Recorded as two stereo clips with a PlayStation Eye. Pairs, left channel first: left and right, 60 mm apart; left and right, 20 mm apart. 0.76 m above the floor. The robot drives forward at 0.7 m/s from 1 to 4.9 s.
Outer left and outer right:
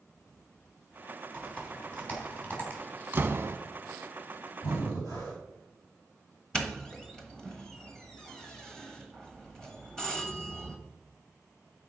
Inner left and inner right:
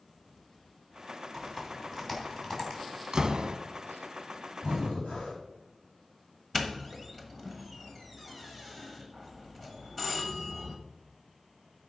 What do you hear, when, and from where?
1.3 s typing on a keyboard: 20° left (ahead or behind), 3.5 m; by 2.8 s 25° left (ahead or behind), 3 m
3.1 s a door slam: 30° right (ahead or behind), 0.9 m; by 3.6 s 40° right (ahead or behind), 0.7 m
4.6 s breathing: 85° left, 4.5 m
6.5 s a doorbell: 10° left (ahead or behind), 1.3 m